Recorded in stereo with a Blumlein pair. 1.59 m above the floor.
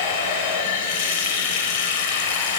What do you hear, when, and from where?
0.0 s running water: 55° left, 1.1 m